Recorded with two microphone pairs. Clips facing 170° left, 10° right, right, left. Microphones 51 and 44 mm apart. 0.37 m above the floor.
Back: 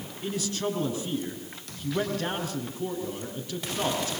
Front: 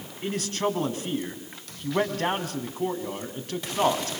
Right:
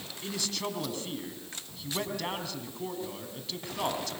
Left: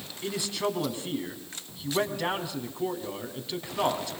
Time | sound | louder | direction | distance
0.2 | a man speaking | front 3 dB, left 5 dB | 15° left | 4 m